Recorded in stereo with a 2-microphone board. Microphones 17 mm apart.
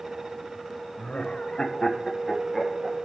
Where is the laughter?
70° left (ahead or behind), 1.2 m; by 3.1 s 5° right (ahead or behind), 1.7 m.